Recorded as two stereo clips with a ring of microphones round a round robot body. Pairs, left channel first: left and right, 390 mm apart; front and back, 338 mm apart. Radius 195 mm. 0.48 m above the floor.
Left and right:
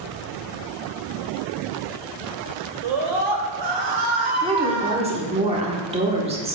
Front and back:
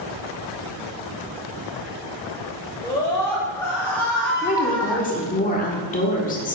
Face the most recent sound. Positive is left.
turn(degrees=-35)